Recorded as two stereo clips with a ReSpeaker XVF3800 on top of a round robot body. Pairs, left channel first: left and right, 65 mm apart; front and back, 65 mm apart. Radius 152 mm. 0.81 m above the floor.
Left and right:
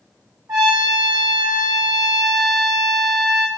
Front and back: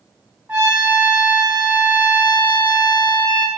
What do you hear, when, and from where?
0.5 s a trumpet: 115° right, 0.9 m